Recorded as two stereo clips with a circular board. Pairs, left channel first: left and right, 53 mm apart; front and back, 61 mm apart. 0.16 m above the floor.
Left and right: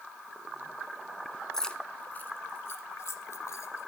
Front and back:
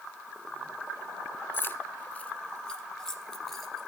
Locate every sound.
1.5 s keys jangling: 15° left, 0.9 m; by 3.9 s 85° left, 2.0 m